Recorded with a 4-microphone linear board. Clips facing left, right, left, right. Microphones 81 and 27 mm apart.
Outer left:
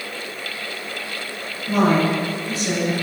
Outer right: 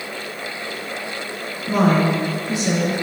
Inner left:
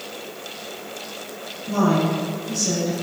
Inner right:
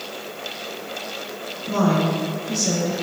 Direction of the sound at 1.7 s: 20° right (ahead or behind).